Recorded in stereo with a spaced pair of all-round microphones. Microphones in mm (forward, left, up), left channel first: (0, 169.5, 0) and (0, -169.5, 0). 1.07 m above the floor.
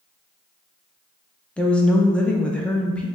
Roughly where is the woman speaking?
Centre.